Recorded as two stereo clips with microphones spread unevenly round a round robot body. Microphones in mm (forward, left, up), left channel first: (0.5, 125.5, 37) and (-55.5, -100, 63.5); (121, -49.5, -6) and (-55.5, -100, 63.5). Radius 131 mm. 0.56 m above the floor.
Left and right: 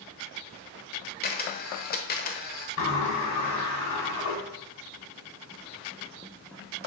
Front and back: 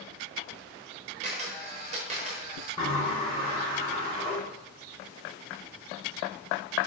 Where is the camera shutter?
125° left, 1.2 m.